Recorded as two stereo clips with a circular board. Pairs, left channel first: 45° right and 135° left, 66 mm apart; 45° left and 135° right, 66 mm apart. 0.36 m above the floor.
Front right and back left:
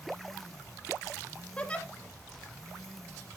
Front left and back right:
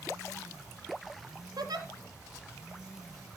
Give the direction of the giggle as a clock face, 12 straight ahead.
4 o'clock.